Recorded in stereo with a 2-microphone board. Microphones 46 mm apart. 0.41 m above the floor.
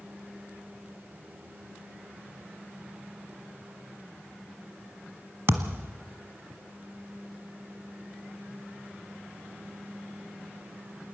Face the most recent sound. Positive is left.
turn(degrees=-65)  # may be behind; listen again after turning